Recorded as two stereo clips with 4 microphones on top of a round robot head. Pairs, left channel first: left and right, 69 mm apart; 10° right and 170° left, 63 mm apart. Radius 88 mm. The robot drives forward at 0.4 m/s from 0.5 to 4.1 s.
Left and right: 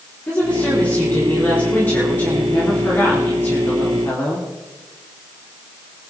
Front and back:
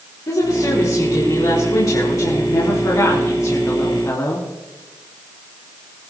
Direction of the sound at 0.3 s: 20° left.